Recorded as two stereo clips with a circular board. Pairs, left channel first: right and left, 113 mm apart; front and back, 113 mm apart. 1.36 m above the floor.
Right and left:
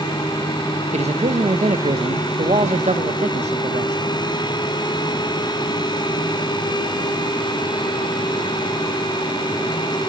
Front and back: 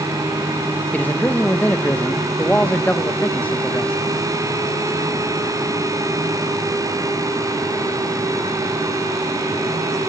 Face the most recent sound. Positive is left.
turn(degrees=75)